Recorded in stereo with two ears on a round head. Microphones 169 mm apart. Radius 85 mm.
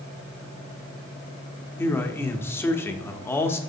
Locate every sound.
1.8 s a man speaking: 10° left (ahead or behind), 1.0 m